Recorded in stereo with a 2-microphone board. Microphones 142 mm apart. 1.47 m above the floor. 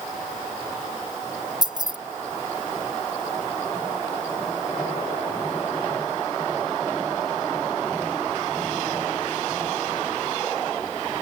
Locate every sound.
1.6 s keys jangling: 30° right (ahead or behind)